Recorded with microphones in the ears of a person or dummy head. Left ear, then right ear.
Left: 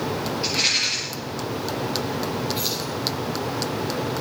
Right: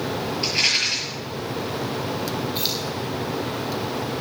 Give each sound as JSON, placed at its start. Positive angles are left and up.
{"t": 0.4, "sound": "a rattle", "side_deg": -15, "distance_m": 6.0}
{"t": 2.5, "sound": "keys jangling", "side_deg": -15, "distance_m": 3.5}